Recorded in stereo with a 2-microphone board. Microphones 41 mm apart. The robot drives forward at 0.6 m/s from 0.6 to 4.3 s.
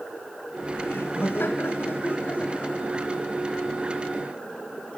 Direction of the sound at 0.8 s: 75° left (ahead or behind).